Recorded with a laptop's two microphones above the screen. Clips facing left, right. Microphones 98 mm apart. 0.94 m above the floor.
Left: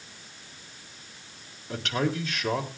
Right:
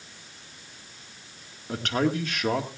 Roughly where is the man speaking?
Right.